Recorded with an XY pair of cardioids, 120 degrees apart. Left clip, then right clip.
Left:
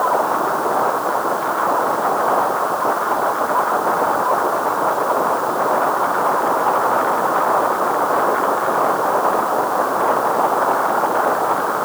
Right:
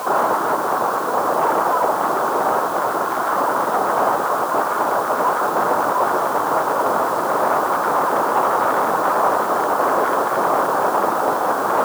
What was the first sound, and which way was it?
Only background noise.